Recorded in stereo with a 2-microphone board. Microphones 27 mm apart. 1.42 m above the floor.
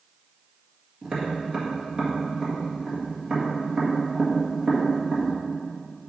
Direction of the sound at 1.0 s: 30° right (ahead or behind).